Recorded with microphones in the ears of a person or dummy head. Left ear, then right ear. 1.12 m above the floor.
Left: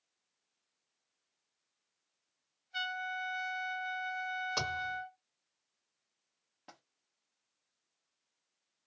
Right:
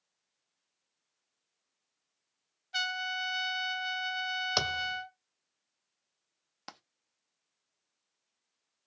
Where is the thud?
35° right (ahead or behind), 1.5 m.